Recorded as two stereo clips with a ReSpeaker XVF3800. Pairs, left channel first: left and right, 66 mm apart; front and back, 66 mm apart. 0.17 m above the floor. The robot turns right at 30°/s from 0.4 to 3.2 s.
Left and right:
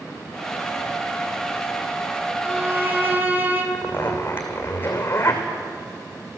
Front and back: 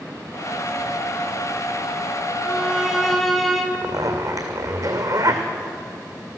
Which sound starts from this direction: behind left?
A zipper, at 3.7 s.